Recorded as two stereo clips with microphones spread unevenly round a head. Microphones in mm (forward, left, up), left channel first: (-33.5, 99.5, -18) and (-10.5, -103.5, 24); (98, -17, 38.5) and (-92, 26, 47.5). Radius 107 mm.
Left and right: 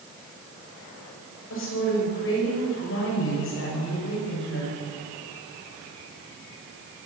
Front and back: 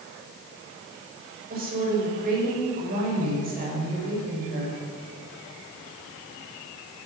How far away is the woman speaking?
About 6.5 m.